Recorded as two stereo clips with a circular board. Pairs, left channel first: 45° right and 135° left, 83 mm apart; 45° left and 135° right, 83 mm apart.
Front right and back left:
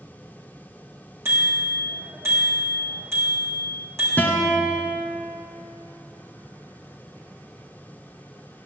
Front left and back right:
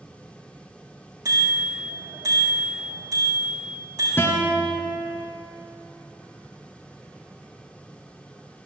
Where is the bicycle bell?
175° right, 6 m.